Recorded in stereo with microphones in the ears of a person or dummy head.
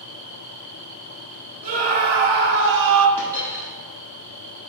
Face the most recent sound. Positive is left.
turn(degrees=-15)  # may be behind; listen again after turning